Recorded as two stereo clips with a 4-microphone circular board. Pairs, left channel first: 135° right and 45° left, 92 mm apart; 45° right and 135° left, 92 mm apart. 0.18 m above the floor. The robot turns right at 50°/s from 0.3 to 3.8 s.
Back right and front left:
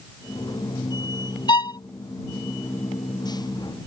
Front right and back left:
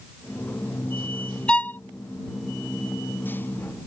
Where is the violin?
120° right; by 1.8 s 105° right.